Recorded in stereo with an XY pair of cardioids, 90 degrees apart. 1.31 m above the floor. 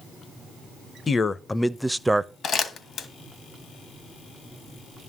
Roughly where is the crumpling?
Ahead left.